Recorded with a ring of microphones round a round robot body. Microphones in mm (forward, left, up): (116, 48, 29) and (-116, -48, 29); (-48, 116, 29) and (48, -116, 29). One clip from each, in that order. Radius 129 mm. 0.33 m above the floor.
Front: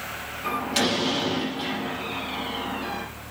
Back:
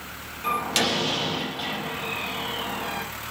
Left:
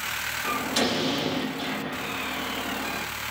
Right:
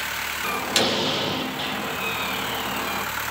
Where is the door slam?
105° right, 7 m.